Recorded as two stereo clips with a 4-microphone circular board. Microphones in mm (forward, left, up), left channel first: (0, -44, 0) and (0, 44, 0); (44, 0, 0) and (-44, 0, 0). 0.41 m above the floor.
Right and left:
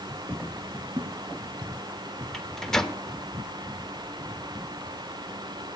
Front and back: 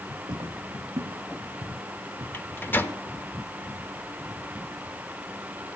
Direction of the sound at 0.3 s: 160° left.